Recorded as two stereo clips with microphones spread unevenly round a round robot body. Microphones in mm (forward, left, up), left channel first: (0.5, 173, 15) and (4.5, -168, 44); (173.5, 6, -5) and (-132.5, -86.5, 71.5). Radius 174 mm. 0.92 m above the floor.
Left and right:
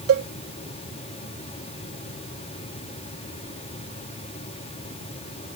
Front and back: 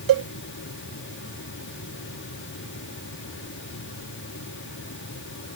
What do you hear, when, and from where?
0.1 s a cowbell: 140° right